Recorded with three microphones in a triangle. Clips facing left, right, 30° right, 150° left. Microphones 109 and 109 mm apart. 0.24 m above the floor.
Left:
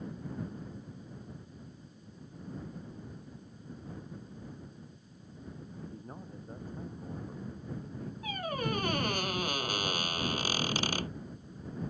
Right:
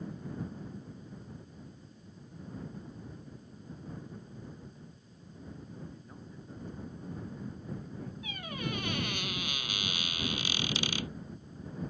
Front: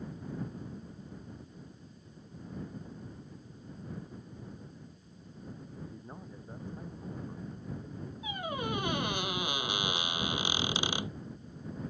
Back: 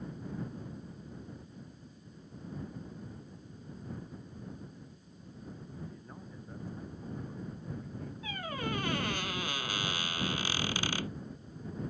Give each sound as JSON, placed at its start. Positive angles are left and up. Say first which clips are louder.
{"t": 5.8, "sound": "a man speaking", "louder": "left 3 dB, front 1 dB", "azimuth_deg": 40}
{"t": 8.2, "sound": "a squeak", "louder": "left 6 dB, front 2 dB", "azimuth_deg": 40}